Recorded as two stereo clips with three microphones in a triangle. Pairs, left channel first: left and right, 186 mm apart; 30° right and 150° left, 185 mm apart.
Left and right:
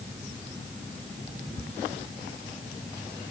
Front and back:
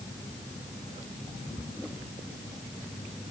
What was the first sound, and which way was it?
Only background noise.